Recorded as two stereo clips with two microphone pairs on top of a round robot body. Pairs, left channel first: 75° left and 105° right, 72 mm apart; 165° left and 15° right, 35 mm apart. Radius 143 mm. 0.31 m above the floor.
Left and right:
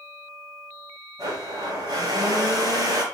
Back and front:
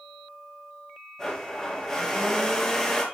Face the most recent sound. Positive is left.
turn(degrees=-115)